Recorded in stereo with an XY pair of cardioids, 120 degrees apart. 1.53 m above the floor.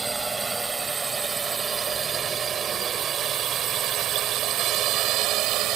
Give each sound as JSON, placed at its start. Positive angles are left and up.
{"t": 0.0, "sound": "a drone", "azimuth_deg": -15}